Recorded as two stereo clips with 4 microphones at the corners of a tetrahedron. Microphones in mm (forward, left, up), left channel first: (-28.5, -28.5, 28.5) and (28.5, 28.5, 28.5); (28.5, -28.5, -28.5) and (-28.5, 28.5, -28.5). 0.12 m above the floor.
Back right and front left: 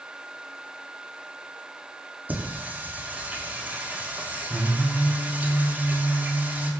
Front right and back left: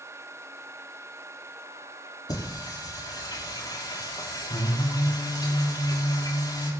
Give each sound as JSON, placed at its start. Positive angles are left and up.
{"t": 2.3, "sound": "singing", "azimuth_deg": -25, "distance_m": 5.5}